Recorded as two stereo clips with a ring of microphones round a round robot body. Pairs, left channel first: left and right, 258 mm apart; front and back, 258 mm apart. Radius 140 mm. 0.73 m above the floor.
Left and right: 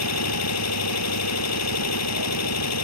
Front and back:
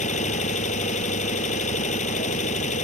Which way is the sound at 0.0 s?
65° left.